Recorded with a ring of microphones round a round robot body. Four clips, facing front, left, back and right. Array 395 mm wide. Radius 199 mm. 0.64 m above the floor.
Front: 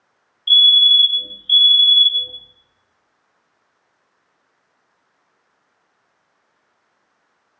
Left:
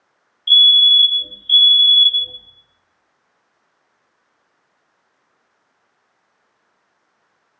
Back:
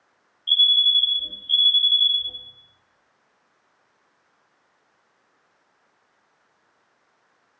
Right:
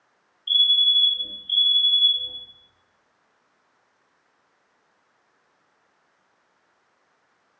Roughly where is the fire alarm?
Ahead left.